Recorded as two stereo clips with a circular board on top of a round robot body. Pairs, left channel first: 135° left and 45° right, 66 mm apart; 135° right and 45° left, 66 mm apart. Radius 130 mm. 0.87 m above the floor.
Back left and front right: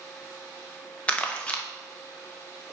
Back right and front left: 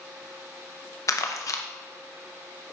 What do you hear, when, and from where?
1.1 s crumpling: 155° right, 1.2 m